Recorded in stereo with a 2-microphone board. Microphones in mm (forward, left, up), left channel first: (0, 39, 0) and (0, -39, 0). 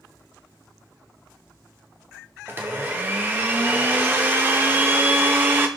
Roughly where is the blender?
Right.